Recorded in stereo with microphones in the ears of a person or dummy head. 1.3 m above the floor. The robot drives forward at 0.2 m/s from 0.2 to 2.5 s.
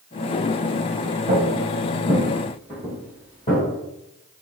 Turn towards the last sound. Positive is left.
turn(degrees=35)  # may be behind; listen again after turning